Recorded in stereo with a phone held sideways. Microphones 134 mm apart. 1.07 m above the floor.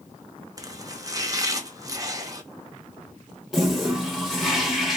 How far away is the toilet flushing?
About 1.2 m.